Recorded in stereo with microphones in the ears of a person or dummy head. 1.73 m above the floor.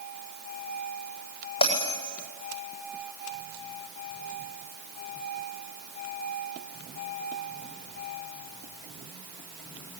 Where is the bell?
25° left (ahead or behind), 10 m.